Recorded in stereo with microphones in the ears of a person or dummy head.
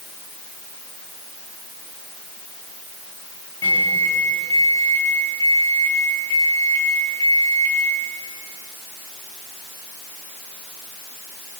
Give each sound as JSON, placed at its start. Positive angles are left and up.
{"t": 3.6, "sound": "a microwave", "side_deg": 20, "distance_m": 2.5}